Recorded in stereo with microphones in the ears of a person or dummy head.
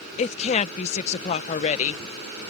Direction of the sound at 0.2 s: 40° left (ahead or behind).